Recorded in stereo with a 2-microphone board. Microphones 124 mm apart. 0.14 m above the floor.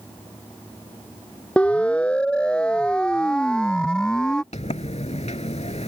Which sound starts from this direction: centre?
A siren, at 1.6 s.